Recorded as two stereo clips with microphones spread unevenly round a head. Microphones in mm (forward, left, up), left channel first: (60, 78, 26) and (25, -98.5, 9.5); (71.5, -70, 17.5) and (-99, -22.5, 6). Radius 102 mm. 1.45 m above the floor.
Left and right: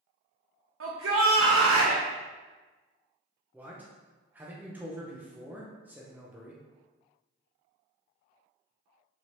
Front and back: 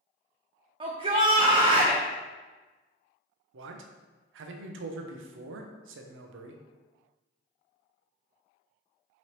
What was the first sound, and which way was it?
A shout, 130° right.